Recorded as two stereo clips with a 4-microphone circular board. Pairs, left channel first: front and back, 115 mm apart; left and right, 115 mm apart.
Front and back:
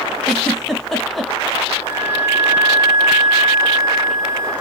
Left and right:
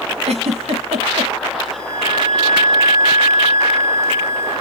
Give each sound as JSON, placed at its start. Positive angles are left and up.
{"t": 0.2, "sound": "a giggle", "azimuth_deg": -90, "distance_m": 1.0}
{"t": 1.7, "sound": "a flute", "azimuth_deg": 110, "distance_m": 1.2}